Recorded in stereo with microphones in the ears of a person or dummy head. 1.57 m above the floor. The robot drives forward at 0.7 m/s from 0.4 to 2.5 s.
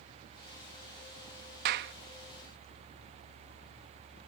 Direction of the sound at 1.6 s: 55° right (ahead or behind).